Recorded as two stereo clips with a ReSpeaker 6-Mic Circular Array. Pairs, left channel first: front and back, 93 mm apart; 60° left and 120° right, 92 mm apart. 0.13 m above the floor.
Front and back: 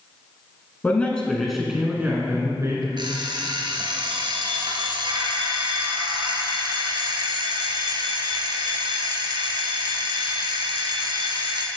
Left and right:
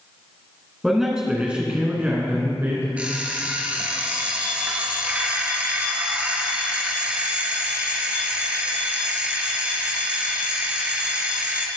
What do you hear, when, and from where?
0.8 s a man speaking: 35° right, 1.2 m; by 2.9 s 170° right, 1.5 m
3.0 s an alarm clock: 165° left, 1.2 m